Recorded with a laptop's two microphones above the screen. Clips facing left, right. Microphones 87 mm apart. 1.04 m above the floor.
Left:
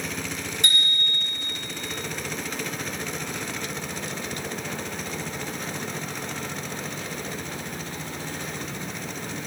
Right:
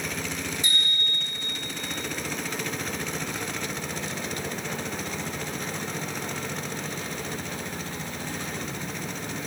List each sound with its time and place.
0.6 s a bicycle bell: 65° left (ahead or behind), 6 m